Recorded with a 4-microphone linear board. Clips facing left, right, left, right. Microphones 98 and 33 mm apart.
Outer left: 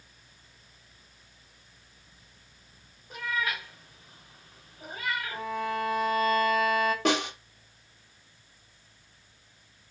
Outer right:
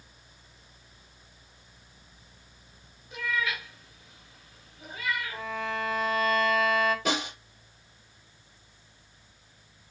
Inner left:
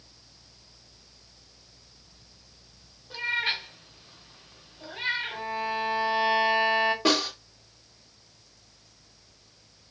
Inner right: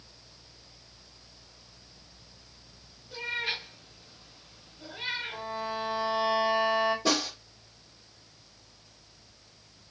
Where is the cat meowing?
50° left (ahead or behind), 1.9 m.